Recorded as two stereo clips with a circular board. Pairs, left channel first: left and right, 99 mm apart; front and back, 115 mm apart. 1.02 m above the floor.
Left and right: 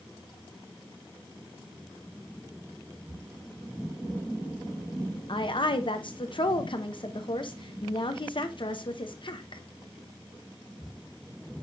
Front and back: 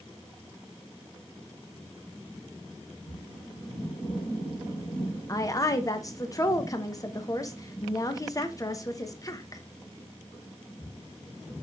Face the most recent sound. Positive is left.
turn(degrees=60)